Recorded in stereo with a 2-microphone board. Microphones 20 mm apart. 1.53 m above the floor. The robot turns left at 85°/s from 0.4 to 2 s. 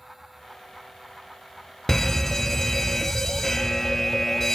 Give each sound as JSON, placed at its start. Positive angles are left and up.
{"t": 1.9, "sound": "a fire alarm", "side_deg": 20, "distance_m": 0.6}